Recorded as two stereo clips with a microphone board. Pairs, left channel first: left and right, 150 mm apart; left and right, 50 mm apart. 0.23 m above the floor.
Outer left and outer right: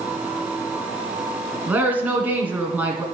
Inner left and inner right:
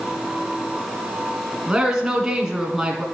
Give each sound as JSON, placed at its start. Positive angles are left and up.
{"t": 1.7, "sound": "a woman speaking", "side_deg": -10, "distance_m": 1.8}